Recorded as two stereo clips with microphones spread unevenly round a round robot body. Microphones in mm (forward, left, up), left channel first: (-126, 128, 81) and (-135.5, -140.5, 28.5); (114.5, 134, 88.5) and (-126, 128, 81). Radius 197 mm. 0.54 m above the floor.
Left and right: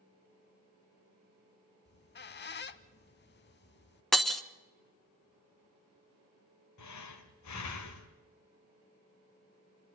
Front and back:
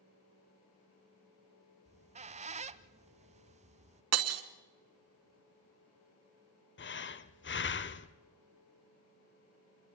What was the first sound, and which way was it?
A squeak, 120° left.